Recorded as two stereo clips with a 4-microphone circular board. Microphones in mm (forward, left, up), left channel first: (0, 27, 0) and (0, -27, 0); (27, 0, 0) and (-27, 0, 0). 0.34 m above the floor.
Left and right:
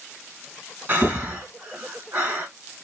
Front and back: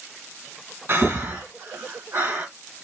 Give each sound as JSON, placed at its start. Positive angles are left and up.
{"t": 0.9, "sound": "breathing", "azimuth_deg": -140, "distance_m": 1.4}